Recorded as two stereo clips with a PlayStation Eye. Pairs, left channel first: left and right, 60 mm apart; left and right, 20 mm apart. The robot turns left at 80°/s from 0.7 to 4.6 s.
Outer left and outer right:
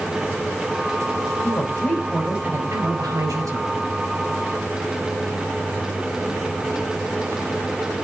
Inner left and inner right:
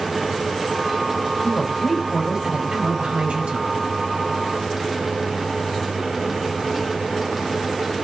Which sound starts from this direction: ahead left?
A woman speaking, at 1.4 s.